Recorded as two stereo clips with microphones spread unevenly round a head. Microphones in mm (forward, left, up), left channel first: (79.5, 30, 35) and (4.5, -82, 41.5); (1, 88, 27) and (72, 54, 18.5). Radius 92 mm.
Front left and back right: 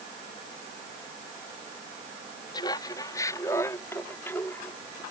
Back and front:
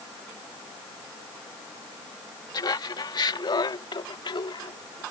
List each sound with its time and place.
2.5 s laughter: 125° left; by 5.0 s 140° left